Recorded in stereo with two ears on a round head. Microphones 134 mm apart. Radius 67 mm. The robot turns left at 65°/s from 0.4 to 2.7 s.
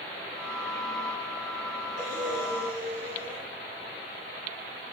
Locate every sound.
2.0 s breathing: 20° left, 6 m; by 3.4 s 25° right, 6 m